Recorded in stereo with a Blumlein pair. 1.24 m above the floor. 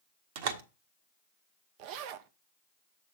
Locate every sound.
0.3 s a door slam: 50° right, 1.3 m
1.8 s a zipper: 45° right, 0.8 m